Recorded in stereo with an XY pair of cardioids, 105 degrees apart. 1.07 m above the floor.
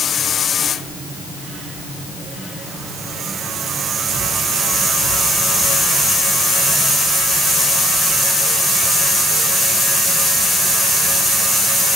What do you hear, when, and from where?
Only background noise.